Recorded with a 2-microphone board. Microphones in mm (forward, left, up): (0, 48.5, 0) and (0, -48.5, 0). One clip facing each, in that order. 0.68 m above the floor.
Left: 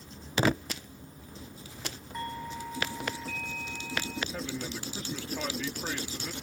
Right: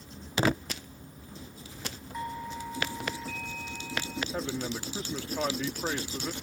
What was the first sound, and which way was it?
A doorbell, 5° right (ahead or behind).